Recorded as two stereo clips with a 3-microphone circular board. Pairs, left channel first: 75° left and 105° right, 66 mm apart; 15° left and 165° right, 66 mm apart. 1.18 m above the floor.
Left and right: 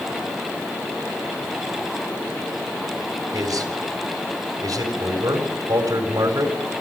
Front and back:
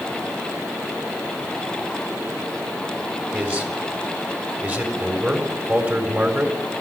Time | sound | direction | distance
3.3 | a man speaking | 105° right | 4.5 m